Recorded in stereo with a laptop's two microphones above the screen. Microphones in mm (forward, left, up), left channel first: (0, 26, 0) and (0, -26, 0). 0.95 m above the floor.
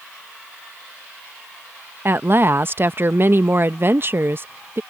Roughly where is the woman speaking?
Right.